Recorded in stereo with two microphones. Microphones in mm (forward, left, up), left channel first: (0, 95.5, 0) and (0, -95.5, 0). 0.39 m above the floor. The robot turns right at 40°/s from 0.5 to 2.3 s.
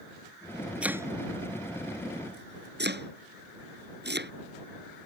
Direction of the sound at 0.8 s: 5° right (ahead or behind).